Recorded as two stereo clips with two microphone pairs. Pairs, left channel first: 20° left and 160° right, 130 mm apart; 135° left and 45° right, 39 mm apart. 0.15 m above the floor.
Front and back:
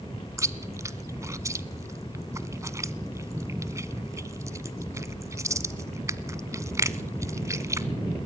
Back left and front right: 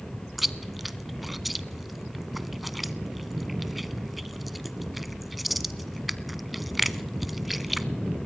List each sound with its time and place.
0.4 s chewing: 130° right, 0.8 m